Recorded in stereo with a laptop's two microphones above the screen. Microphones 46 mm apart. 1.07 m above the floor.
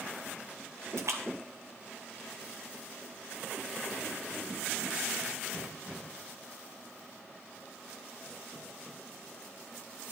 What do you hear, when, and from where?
1.0 s a splash: 75° right (ahead or behind), 2.5 m